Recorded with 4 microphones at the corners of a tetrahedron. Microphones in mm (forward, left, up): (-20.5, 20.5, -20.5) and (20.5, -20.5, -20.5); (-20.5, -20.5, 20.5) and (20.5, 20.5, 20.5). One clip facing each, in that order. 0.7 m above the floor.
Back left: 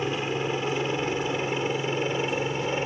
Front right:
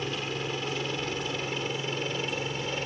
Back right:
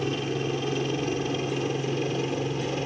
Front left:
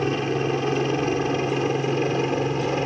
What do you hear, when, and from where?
0.0 s a helicopter: 75° left